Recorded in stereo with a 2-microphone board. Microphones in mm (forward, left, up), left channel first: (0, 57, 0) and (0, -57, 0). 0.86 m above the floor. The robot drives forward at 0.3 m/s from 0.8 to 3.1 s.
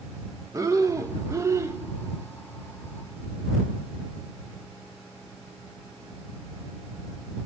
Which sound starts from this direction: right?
Breathing, at 0.5 s.